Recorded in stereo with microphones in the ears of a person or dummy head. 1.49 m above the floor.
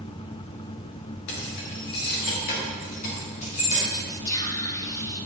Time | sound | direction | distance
1.3 | keys jangling | 70° left (ahead or behind) | 2 m
3.9 | whispering | 15° left (ahead or behind) | 0.8 m